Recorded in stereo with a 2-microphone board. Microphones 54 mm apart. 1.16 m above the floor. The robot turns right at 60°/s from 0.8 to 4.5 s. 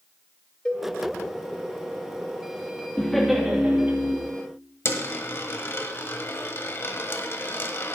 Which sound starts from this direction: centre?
A cowbell, at 0.7 s.